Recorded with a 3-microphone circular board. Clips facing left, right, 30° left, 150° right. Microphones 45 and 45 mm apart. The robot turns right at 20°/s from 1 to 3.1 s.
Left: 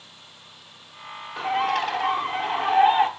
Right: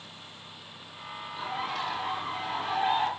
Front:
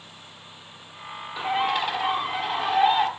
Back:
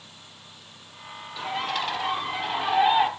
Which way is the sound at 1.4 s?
95° left.